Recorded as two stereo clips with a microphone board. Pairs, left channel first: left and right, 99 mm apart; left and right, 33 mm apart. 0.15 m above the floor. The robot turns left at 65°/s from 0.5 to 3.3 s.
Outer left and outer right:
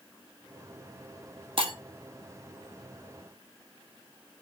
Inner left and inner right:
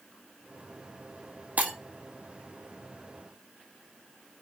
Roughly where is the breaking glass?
Right.